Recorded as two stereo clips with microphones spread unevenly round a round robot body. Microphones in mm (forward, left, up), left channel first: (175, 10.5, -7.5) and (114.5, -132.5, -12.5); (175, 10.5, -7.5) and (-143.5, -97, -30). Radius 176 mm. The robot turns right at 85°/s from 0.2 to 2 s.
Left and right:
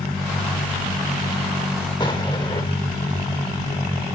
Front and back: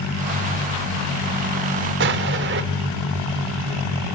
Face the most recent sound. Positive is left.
turn(degrees=140)